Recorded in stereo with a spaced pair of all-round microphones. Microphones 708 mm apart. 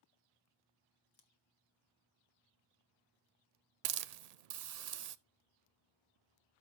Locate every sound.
1.1 s scissors: 55° left (ahead or behind), 1.3 m
3.9 s a hiss: 65° right (ahead or behind), 0.5 m